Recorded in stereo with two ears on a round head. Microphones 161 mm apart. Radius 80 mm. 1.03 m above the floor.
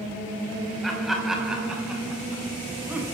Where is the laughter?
Centre (ahead or behind), 5 m; by 3.1 s 10° right (ahead or behind), 7 m.